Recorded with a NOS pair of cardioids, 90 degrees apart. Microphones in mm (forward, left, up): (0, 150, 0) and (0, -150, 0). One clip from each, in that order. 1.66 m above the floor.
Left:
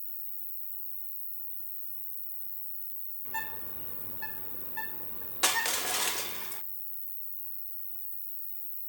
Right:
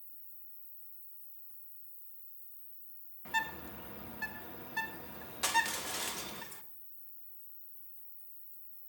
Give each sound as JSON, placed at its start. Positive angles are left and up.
{"t": 0.0, "sound": "an insect", "azimuth_deg": 70, "distance_m": 0.9}
{"t": 3.2, "sound": "a bird", "azimuth_deg": -65, "distance_m": 3.0}
{"t": 5.4, "sound": "crushing", "azimuth_deg": 30, "distance_m": 0.6}